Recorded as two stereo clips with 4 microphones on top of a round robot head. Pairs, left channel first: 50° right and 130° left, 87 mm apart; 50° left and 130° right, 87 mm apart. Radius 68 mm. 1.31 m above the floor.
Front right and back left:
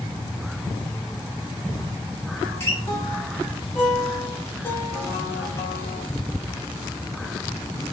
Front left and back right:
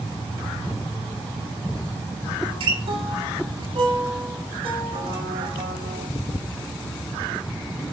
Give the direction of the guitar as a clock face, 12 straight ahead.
4 o'clock.